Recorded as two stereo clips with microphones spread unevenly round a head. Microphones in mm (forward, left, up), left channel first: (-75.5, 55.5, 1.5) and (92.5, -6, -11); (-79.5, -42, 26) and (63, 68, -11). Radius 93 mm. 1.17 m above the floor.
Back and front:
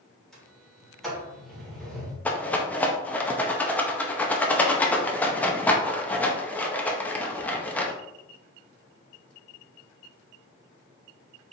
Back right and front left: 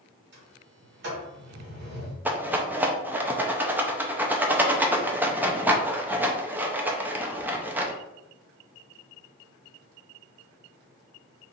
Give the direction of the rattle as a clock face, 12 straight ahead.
9 o'clock.